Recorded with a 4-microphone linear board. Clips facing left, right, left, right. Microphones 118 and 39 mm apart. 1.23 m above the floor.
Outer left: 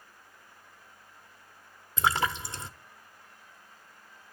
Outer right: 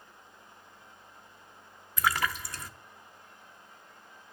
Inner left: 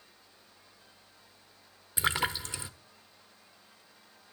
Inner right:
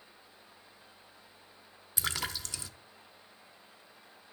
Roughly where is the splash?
Left.